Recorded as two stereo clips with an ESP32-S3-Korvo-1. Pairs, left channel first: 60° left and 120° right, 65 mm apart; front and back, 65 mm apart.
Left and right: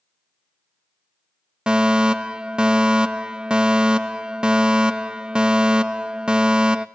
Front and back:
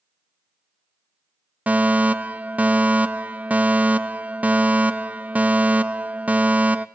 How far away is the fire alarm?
About 0.6 m.